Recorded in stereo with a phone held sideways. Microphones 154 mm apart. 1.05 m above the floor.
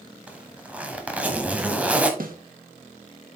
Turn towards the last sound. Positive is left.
turn(degrees=-65)  # may be behind; listen again after turning